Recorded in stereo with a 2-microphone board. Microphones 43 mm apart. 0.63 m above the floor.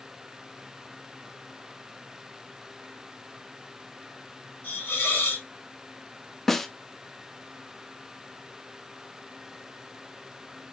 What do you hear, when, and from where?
4.6 s a hiss: 75° left (ahead or behind), 4 m
6.5 s a snare drum: 5° left (ahead or behind), 0.5 m